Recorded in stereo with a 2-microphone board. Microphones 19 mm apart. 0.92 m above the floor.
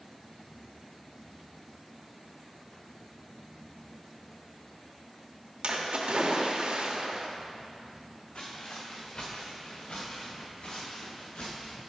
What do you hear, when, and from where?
5.6 s a splash: 65° right (ahead or behind), 1.4 m
8.3 s footsteps: 70° left (ahead or behind), 2.5 m; by 11.8 s 65° left (ahead or behind), 7 m